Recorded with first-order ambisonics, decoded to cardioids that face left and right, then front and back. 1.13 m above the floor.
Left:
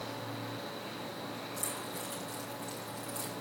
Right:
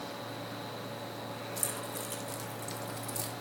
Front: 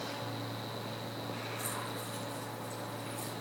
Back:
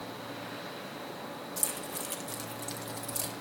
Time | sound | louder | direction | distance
1.6 | keys jangling | right 2 dB, back 1 dB | 155° right | 3 m